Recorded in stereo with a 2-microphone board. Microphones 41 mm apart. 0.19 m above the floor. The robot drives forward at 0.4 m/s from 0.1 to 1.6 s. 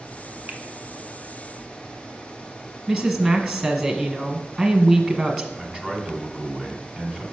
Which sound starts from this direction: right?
A finger snap, at 0.5 s.